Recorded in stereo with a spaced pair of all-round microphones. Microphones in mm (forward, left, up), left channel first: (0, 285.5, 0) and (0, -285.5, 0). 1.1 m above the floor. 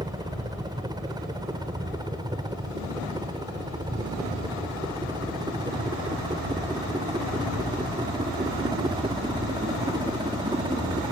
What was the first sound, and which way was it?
A helicopter, 5° right (ahead or behind).